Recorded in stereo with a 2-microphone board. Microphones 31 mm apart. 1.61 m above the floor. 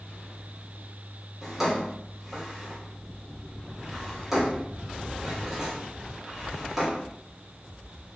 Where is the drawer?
5° right (ahead or behind), 1.5 m.